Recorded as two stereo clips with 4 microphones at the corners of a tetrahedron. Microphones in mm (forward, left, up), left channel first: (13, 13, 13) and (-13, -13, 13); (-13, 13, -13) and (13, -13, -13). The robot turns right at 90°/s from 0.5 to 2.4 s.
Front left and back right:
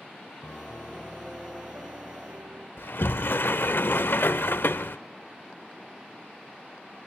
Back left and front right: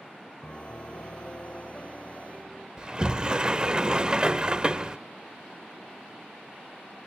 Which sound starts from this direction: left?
A piano, at 0.4 s.